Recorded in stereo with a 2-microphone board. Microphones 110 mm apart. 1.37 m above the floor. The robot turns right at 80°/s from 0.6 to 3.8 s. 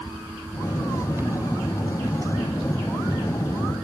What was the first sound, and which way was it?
Only background noise.